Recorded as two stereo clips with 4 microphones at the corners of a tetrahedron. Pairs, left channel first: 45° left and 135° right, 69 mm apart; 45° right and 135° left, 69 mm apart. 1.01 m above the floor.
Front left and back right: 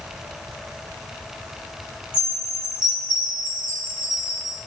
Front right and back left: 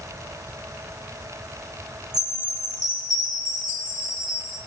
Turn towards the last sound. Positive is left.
turn(degrees=150)